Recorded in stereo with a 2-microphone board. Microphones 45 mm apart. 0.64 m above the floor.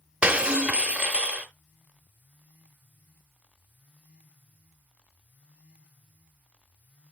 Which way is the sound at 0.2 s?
25° right (ahead or behind).